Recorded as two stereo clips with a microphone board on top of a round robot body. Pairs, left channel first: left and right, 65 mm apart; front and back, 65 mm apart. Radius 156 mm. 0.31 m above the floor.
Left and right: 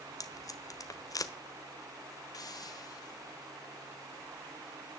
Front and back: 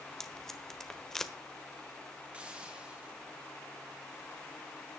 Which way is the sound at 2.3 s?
110° left.